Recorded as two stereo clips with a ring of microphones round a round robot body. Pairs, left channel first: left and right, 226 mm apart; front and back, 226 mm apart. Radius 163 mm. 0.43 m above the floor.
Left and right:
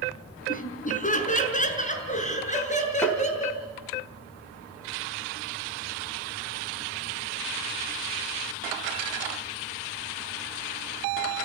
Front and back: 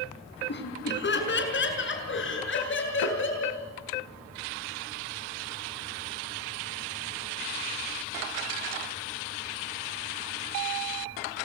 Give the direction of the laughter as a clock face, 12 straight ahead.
11 o'clock.